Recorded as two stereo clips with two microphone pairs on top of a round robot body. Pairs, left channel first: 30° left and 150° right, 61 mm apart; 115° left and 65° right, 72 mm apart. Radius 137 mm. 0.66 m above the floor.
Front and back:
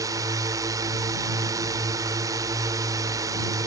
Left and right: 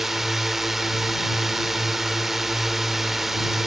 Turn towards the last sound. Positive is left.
turn(degrees=-150)